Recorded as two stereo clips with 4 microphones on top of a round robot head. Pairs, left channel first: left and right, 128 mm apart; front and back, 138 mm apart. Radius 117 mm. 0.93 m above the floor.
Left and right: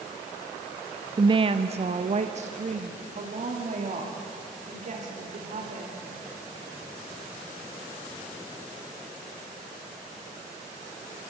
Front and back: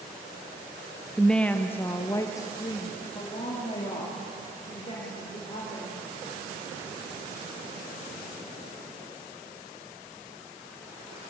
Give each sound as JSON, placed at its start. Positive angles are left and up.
{"t": 1.2, "sound": "a woman speaking", "azimuth_deg": -85, "distance_m": 0.6}